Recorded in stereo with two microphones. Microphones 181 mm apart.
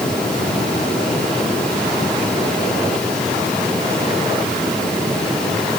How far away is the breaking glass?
No breaking glass in this recording.